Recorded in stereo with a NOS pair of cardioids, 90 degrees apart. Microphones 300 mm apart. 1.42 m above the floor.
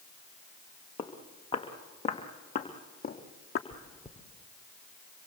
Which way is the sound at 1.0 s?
15° left.